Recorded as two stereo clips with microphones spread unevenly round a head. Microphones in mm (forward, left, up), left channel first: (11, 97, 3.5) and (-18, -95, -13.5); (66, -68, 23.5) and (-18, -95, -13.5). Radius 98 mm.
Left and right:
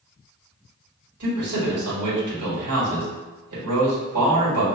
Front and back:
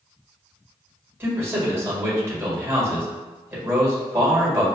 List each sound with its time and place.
1.2 s a man speaking: 95° right, 1.8 m